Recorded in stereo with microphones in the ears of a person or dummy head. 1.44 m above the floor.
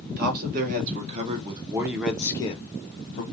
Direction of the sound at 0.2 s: 50° right (ahead or behind).